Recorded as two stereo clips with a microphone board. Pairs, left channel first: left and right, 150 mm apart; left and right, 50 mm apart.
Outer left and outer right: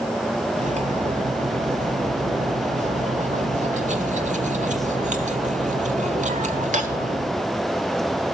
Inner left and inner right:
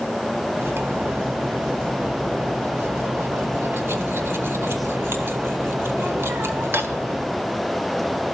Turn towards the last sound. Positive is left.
turn(degrees=-55)  # may be behind; listen again after turning